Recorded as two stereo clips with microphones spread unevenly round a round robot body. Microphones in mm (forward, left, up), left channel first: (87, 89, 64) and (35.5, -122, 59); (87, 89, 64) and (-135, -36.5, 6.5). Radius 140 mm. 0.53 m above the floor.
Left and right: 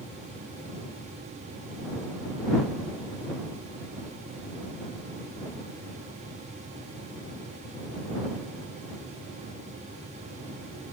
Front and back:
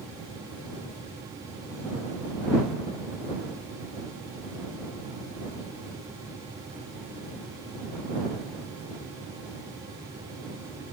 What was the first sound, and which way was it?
Only background noise.